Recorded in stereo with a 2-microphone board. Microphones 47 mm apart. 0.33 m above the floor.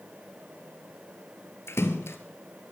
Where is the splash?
85° left, 1.8 m.